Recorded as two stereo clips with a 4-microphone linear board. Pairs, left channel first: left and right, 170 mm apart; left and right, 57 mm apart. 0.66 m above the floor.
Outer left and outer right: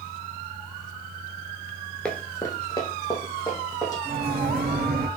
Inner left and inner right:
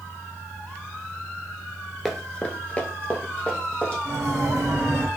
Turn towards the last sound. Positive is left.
turn(degrees=-65)  # may be behind; listen again after turning